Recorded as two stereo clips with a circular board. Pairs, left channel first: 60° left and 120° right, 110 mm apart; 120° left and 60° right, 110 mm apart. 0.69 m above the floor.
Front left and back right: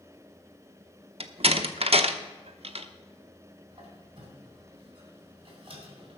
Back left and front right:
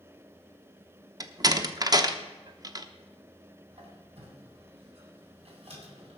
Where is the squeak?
85° right, 3.5 m.